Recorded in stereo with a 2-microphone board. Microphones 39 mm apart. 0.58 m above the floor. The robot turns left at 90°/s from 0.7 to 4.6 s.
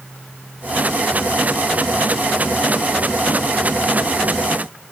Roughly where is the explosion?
I don't hear an explosion.